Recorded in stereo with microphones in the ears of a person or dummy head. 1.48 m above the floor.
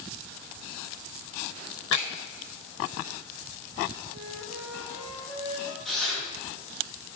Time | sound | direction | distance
1.9 | a finger snap | 80° right | 3 m
4.1 | a flute | 70° right (ahead or behind) | 2.5 m
5.8 | tearing paper | 5° left (ahead or behind) | 4.5 m